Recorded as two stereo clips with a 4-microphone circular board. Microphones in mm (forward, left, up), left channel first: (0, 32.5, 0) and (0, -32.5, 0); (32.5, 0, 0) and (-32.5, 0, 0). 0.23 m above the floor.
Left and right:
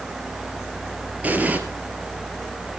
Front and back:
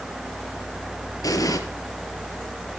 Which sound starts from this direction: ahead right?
An explosion, at 1.2 s.